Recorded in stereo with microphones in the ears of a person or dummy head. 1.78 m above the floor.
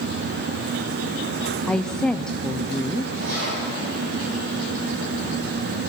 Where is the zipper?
70° right (ahead or behind), 9.5 m.